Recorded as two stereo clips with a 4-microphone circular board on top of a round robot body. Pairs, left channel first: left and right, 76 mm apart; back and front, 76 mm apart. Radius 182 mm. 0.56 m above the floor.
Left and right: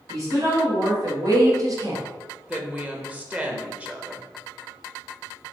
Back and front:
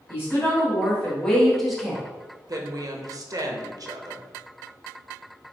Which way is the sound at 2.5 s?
20° right.